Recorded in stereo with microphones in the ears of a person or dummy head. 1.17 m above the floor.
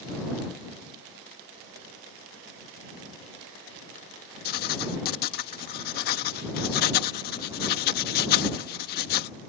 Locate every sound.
4.5 s writing: 50° left (ahead or behind)